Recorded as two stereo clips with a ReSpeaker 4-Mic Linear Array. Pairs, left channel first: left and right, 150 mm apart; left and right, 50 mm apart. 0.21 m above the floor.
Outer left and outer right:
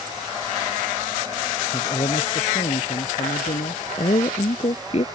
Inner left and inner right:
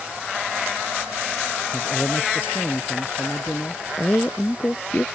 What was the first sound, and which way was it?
A man speaking, 35° left (ahead or behind).